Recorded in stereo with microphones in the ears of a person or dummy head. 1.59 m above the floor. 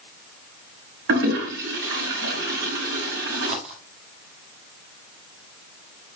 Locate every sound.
1.1 s a toilet flushing: 65° right (ahead or behind), 4.5 m
3.4 s a dropped coin: 45° right (ahead or behind), 3.5 m